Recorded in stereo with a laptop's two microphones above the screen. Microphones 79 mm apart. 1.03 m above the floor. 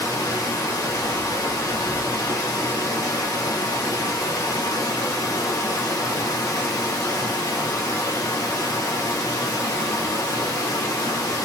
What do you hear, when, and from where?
0.0 s running water: 40° left (ahead or behind), 1.6 m